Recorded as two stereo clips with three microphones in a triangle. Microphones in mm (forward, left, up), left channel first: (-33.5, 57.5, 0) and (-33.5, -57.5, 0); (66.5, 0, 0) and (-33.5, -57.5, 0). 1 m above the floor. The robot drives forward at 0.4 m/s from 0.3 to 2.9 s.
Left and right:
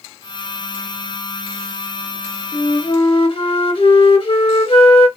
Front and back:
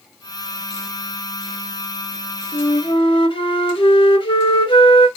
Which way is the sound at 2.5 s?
55° left.